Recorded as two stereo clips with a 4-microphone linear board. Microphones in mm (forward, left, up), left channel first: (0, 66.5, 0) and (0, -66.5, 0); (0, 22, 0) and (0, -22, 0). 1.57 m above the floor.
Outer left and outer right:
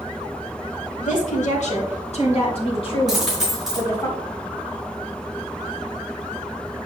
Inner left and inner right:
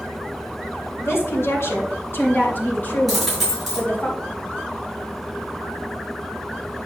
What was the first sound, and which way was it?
A woman speaking, 65° left (ahead or behind).